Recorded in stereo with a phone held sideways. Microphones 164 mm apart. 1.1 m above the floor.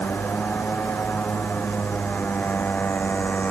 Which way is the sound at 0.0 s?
10° left (ahead or behind).